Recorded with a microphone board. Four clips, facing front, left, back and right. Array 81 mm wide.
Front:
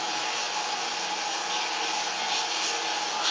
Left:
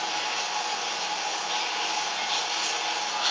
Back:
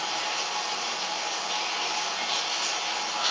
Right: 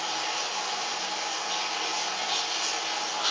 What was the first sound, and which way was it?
Running water, 110° left.